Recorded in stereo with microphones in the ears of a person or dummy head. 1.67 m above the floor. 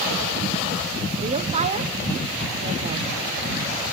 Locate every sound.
1.2 s a woman speaking: 35° right (ahead or behind), 1.1 m